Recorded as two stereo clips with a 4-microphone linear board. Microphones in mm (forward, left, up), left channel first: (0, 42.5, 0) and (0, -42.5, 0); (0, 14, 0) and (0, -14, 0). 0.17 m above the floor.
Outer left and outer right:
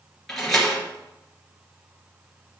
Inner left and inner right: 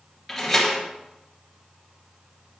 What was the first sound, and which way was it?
A door slam, 5° left (ahead or behind).